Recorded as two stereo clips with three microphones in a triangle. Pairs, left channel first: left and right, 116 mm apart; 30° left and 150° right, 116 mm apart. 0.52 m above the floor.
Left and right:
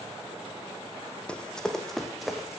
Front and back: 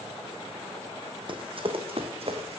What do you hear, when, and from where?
1.3 s running footsteps: 170° left, 1.4 m; by 2.6 s 175° right, 2.0 m